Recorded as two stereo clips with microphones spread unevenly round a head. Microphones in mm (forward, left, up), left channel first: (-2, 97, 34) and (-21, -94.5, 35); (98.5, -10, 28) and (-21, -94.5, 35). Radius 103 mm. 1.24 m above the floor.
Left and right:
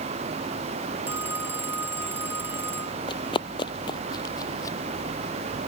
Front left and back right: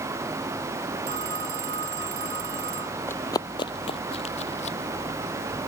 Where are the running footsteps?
100° left; by 4.8 s 15° left.